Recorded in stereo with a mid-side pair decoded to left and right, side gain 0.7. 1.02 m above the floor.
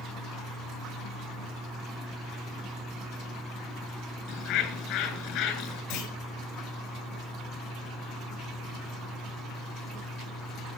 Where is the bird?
55° left, 7.5 m.